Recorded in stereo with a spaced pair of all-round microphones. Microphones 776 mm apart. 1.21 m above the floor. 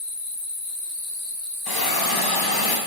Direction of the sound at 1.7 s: 30° left (ahead or behind).